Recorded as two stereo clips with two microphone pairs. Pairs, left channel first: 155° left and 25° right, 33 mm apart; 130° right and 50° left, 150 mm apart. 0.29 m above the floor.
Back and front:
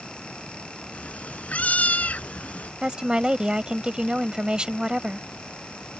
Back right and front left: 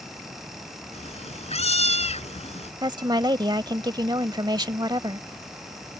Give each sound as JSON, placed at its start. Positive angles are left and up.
{"t": 0.9, "sound": "a cat meowing", "azimuth_deg": -170}
{"t": 2.8, "sound": "a woman speaking", "azimuth_deg": 20}